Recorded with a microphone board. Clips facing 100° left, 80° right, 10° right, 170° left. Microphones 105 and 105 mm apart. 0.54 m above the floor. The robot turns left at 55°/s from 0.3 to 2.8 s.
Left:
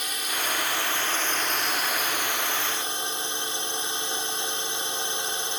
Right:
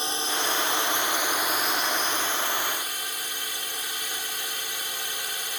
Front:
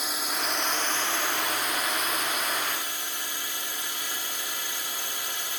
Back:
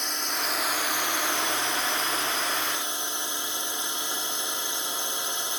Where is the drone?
90° right; by 5.6 s 130° left.